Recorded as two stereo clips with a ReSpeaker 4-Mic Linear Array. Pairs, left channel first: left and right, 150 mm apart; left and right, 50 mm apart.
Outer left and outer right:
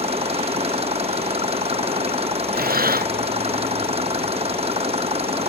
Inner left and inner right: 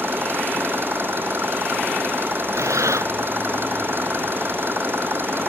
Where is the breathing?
75° right (ahead or behind).